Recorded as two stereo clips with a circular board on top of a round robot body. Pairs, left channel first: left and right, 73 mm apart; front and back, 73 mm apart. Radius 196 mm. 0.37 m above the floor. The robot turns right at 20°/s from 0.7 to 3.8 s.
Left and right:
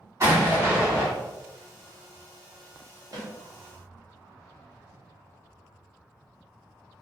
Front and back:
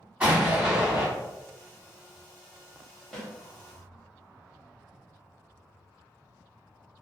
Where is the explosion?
110° right, 1.6 m; by 1.1 s 105° right, 1.6 m.